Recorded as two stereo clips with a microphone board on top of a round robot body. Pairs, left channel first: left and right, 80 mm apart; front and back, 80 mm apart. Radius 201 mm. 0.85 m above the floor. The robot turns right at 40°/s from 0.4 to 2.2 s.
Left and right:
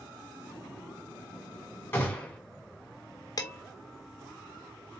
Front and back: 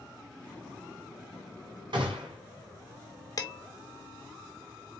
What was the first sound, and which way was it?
A gunshot, 155° left.